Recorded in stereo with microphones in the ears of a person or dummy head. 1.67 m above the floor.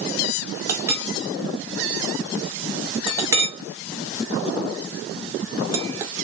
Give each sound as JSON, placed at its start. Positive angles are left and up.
{"t": 0.7, "sound": "a clink", "side_deg": -20, "distance_m": 0.7}